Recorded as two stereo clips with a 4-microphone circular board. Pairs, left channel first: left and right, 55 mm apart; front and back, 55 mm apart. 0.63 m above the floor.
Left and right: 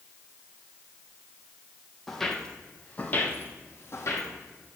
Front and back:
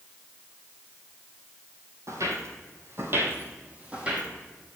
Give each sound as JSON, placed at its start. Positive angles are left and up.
{"t": 2.1, "sound": "footsteps", "azimuth_deg": 175, "distance_m": 1.3}